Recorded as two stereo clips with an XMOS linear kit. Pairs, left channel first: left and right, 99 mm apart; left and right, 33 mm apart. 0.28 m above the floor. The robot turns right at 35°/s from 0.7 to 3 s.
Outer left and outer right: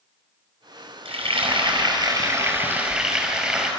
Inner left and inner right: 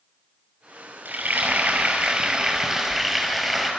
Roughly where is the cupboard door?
I don't hear a cupboard door.